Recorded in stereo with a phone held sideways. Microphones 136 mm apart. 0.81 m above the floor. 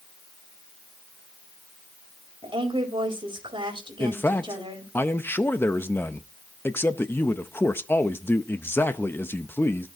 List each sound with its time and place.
2.4 s a woman speaking: 35° right (ahead or behind), 4 m
4.0 s a man speaking: 15° left (ahead or behind), 0.7 m